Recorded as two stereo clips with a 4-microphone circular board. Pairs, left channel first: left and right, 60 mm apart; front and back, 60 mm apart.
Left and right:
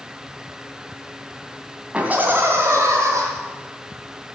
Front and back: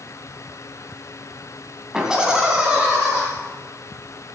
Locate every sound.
1.9 s laughter: 120° right, 1.6 m; by 3.2 s 105° right, 3 m